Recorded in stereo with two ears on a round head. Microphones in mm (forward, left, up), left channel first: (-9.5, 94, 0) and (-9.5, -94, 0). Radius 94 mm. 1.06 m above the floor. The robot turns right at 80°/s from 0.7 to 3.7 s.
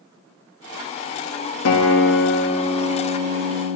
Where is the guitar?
85° left, 1.2 m; by 3.8 s 110° right, 1.2 m.